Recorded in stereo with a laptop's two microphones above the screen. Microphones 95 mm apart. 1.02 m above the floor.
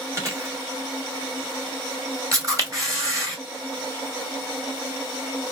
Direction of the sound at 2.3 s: 35° right (ahead or behind).